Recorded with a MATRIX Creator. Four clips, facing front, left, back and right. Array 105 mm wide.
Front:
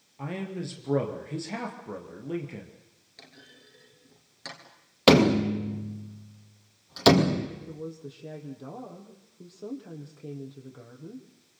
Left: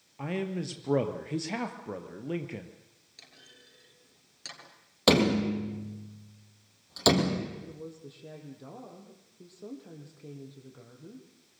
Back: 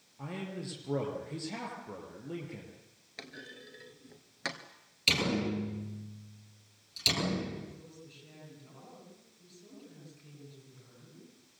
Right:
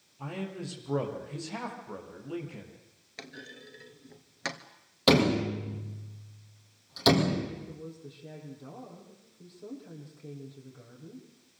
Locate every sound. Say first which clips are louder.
0.2 s a man speaking: left 5 dB, front 6 dB; 70° left, 4 m
3.2 s a clunk: right 13 dB, back 5 dB; 120° right, 2.0 m
5.1 s a door slam: even, front 13 dB; 10° left, 4 m
7.7 s a woman speaking: even, front 12 dB; 15° left, 5.5 m